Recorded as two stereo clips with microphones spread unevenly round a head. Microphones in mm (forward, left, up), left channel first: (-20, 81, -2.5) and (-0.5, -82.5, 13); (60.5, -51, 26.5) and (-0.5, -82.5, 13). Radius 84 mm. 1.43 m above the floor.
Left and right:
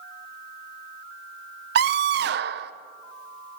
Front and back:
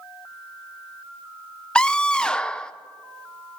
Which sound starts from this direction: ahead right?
A scream, at 1.8 s.